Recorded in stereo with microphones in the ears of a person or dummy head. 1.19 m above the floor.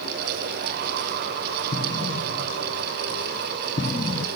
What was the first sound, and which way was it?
An explosion, 20° left (ahead or behind).